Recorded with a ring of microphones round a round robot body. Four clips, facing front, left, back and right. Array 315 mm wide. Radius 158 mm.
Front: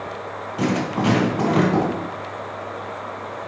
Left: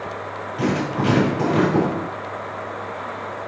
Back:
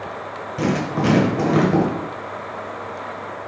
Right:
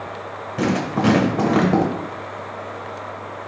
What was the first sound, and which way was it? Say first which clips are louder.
Writing: right 2 dB, back 1 dB; 110° right.